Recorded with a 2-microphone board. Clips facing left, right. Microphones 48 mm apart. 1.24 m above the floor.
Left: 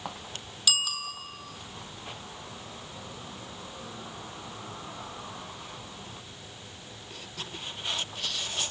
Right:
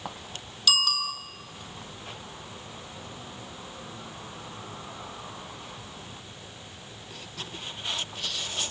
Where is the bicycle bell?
5° left (ahead or behind), 2.5 m.